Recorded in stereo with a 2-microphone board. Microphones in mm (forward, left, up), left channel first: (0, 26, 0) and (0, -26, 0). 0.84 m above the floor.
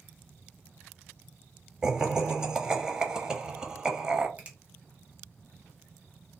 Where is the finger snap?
30° right (ahead or behind), 1.0 m.